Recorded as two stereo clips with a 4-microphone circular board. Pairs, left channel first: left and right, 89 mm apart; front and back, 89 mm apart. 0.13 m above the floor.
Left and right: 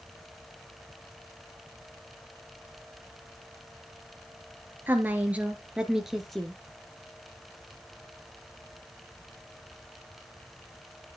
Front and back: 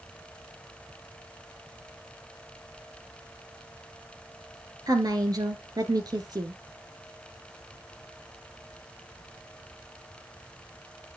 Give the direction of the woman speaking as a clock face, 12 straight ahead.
5 o'clock.